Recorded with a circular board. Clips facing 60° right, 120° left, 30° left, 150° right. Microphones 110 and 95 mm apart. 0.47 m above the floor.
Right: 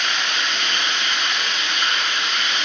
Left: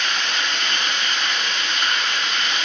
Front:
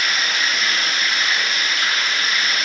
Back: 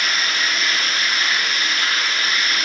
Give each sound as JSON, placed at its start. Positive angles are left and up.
{"t": 0.0, "sound": "running water", "azimuth_deg": 30, "distance_m": 2.5}